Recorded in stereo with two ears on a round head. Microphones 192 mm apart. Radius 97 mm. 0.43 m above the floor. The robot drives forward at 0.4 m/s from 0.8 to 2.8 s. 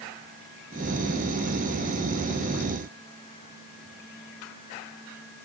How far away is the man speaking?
No man speaking in this recording.